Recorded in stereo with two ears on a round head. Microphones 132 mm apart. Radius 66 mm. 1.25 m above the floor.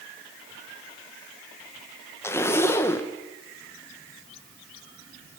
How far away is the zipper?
About 0.8 m.